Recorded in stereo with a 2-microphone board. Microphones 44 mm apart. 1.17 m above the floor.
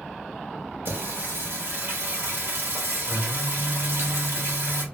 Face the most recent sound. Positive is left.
turn(degrees=-60)  # may be behind; listen again after turning